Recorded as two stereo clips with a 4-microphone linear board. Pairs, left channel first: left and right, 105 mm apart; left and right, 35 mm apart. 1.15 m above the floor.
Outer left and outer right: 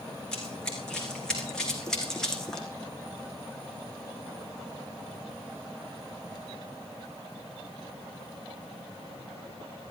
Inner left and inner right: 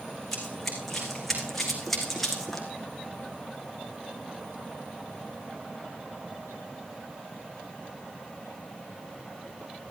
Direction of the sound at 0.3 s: 5° left (ahead or behind).